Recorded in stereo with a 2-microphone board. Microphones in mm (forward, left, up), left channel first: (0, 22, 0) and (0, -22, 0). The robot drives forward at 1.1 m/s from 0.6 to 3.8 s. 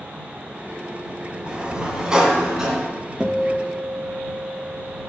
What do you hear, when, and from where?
1.5 s a sliding door: 20° right (ahead or behind), 1.6 m; by 2.9 s 10° right (ahead or behind), 3 m
3.2 s a guitar: 15° right (ahead or behind), 0.7 m; by 5.1 s 10° right (ahead or behind), 1.2 m